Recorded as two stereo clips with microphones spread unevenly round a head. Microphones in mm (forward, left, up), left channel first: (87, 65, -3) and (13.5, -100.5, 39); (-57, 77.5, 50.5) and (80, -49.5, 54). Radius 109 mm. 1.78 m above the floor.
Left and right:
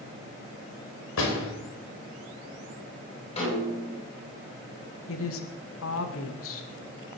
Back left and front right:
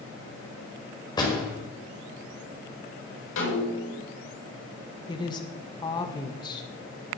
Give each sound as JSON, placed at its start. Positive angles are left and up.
{"t": 1.2, "sound": "a door slam", "azimuth_deg": 70, "distance_m": 5.5}
{"t": 3.4, "sound": "a snare drum", "azimuth_deg": 130, "distance_m": 8.5}
{"t": 5.1, "sound": "a woman speaking", "azimuth_deg": 70, "distance_m": 2.0}